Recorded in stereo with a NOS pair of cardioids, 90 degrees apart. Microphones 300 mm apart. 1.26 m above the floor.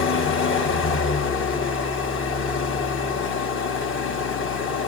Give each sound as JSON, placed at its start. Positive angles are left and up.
{"t": 0.0, "sound": "an engine running", "azimuth_deg": 40, "distance_m": 1.2}